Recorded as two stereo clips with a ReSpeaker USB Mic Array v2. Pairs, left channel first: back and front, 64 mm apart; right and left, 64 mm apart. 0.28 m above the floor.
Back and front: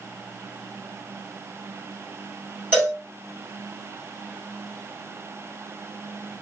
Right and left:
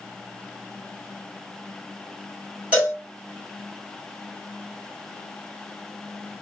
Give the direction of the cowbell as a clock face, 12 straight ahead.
11 o'clock.